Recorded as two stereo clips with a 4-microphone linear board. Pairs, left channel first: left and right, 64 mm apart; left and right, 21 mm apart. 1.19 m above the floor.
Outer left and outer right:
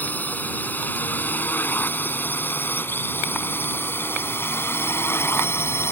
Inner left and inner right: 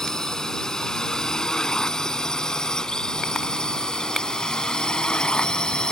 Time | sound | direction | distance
0.0 | a drone | 25° left (ahead or behind) | ?